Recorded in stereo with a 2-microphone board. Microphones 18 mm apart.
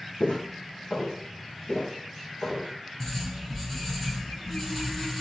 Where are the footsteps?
75° left (ahead or behind), 0.7 m; by 2.7 s 85° left, 2 m.